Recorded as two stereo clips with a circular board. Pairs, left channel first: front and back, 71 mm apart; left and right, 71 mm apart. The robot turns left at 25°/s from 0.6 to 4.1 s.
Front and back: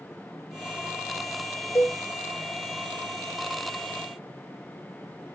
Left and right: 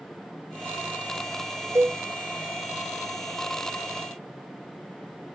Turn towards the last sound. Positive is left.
turn(degrees=-105)